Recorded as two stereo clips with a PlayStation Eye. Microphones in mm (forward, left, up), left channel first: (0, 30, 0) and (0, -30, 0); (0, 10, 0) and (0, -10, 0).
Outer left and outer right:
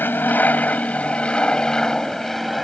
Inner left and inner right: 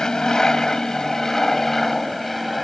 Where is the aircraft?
30° left (ahead or behind); by 2.6 s centre (ahead or behind).